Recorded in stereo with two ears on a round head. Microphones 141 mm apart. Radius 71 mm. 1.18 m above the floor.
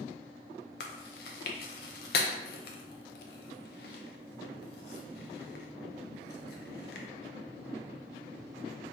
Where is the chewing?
70° left (ahead or behind), 0.6 m.